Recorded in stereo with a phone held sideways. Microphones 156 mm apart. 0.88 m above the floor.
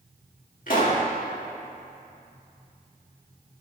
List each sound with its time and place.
0.7 s a pop: 60° left (ahead or behind), 2 m